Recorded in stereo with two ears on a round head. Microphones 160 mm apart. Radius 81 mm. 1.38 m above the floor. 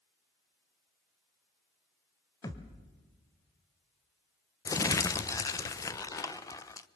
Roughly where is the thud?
Centre.